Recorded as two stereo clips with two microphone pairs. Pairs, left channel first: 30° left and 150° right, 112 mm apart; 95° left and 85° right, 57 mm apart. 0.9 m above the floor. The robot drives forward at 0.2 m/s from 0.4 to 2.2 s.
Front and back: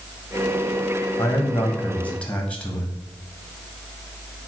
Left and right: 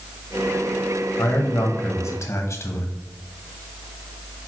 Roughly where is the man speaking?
Left.